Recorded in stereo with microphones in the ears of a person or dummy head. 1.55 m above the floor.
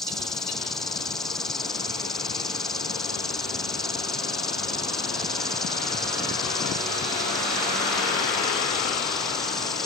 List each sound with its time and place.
0.0 s an insect: 5° left (ahead or behind)